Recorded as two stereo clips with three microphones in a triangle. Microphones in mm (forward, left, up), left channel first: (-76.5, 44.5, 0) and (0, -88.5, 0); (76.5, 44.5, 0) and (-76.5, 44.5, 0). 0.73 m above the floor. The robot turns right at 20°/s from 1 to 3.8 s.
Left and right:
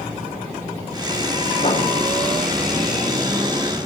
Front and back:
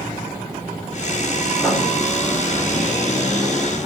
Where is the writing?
75° left, 3 m; by 1.9 s 80° left, 3 m.